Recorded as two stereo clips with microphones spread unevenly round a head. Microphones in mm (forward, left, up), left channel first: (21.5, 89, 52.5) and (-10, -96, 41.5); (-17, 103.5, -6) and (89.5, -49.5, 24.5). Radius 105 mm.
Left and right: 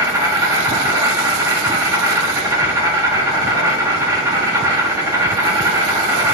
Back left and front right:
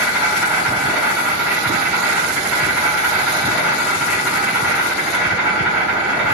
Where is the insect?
150° right, 0.8 m.